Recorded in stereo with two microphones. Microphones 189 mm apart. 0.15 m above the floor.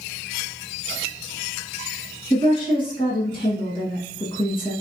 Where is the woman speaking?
30° left (ahead or behind), 1.4 m.